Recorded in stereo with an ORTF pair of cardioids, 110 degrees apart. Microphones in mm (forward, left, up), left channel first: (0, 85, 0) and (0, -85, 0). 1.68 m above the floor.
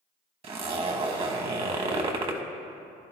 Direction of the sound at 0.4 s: 40° right.